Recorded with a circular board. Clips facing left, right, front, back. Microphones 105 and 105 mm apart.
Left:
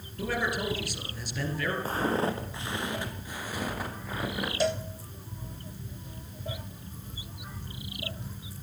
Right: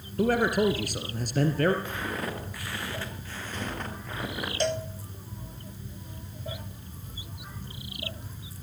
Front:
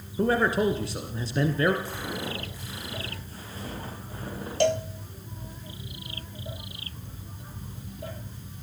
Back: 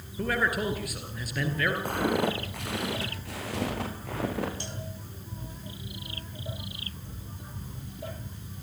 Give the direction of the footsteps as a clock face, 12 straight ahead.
7 o'clock.